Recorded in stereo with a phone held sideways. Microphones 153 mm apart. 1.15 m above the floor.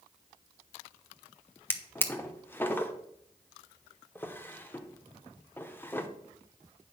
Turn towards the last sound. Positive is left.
turn(degrees=15)  # may be behind; listen again after turning